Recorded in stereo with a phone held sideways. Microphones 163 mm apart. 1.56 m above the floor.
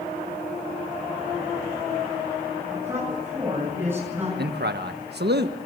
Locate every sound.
2.7 s a man speaking: 15° right (ahead or behind), 10 m
4.4 s a man speaking: 75° right (ahead or behind), 1.5 m